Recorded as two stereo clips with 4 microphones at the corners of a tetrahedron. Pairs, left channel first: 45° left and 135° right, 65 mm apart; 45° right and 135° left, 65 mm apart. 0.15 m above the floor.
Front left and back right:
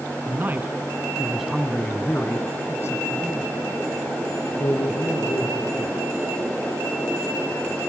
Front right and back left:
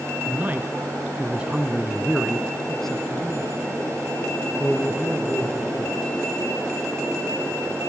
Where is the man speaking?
Straight behind, 2.5 m; by 6.2 s 25° left, 5 m.